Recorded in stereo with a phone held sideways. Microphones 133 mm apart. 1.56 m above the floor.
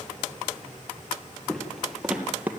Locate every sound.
1.5 s footsteps: 5° left (ahead or behind), 2 m; by 2.5 s 15° right (ahead or behind), 2 m